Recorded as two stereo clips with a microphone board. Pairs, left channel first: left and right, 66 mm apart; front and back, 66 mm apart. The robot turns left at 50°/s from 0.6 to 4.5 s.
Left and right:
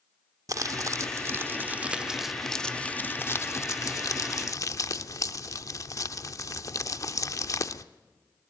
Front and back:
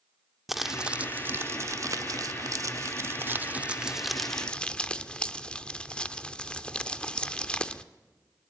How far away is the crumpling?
About 0.8 m.